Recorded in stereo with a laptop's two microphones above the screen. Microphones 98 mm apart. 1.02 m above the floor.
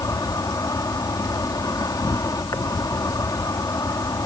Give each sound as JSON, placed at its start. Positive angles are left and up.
{"t": 0.0, "sound": "an insect", "side_deg": 40}